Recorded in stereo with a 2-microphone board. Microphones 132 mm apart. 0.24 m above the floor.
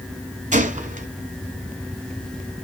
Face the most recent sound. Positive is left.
turn(degrees=-65)  # may be behind; listen again after turning